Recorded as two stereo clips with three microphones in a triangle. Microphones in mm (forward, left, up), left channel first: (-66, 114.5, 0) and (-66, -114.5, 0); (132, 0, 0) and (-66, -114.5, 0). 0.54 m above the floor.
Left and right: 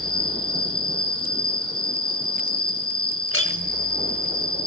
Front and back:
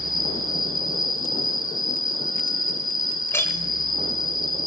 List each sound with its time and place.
0.0 s an insect: 85° left, 4 m
3.3 s a clink: 110° left, 1.3 m